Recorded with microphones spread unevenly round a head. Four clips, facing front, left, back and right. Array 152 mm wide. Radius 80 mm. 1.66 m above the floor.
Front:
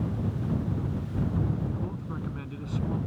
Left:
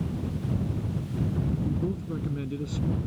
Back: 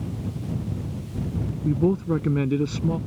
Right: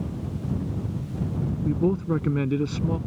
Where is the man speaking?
145° right.